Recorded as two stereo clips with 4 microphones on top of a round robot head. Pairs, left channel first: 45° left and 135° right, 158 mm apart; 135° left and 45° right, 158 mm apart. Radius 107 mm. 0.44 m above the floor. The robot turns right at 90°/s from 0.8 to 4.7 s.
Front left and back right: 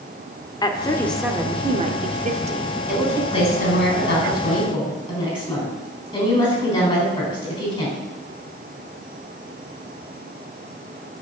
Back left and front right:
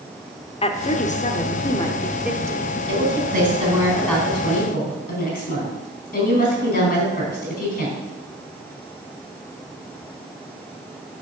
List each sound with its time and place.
0.6 s a woman speaking: 100° left, 1.2 m; by 2.8 s 85° right, 1.2 m
2.9 s a woman speaking: 60° right, 4 m; by 8.0 s 105° left, 4 m